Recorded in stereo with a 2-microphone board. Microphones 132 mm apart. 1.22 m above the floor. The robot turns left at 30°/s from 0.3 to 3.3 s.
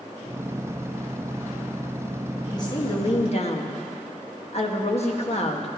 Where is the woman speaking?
25° left (ahead or behind), 1.5 m; by 5.7 s 50° left (ahead or behind), 1.5 m.